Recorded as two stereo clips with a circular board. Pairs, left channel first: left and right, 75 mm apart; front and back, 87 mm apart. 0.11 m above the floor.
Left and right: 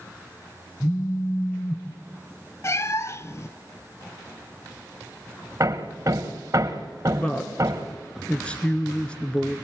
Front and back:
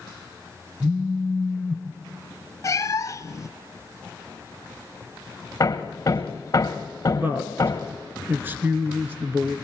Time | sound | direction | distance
0.8 | a phone buzzing | 110° left | 1.8 m
2.6 | a cat meowing | 45° left | 0.5 m
5.6 | hammering | 50° right | 2.5 m
7.1 | a woman speaking | 145° left | 1.4 m